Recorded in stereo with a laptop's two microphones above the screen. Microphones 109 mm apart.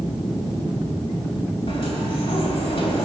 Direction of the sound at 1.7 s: 55° left (ahead or behind).